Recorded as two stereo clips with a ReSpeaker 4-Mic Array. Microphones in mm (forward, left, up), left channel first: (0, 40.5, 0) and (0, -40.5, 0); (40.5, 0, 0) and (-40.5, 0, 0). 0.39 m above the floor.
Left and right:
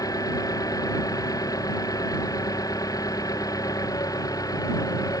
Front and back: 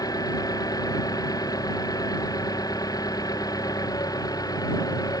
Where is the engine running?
45° left.